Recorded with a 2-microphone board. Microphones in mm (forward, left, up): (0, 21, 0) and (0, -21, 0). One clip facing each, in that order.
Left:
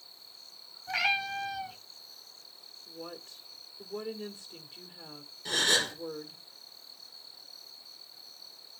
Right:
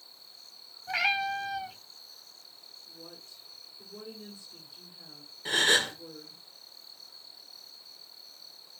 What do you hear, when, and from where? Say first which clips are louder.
0.9 s a cat meowing: right 1 dB; 10° right (ahead or behind), 2 m
2.9 s a woman speaking: left 7 dB; 70° left (ahead or behind), 2 m
5.5 s a gasp: right 3 dB; 35° right (ahead or behind), 4 m